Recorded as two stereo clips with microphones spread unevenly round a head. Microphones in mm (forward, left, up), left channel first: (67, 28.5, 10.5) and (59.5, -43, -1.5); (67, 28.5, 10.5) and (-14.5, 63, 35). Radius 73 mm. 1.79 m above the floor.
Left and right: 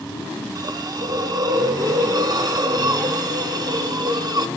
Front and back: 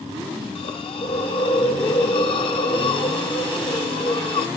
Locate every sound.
0.6 s a hiss: 65° right, 1.0 m